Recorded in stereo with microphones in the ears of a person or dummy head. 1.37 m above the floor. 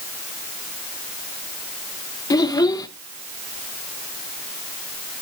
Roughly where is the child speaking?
Centre.